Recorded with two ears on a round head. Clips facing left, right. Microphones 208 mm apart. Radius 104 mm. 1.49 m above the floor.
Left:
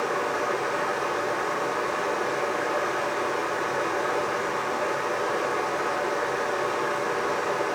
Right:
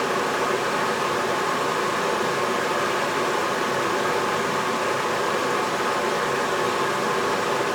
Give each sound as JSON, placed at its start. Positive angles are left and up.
{"t": 0.0, "sound": "running water", "side_deg": -50, "distance_m": 1.0}